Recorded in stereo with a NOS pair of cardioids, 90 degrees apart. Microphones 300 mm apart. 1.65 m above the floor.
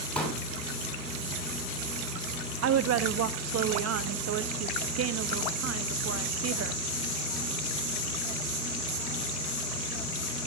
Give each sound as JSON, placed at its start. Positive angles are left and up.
{"t": 0.1, "sound": "a pop", "azimuth_deg": 5, "distance_m": 9.0}
{"t": 2.6, "sound": "a woman speaking", "azimuth_deg": -55, "distance_m": 0.9}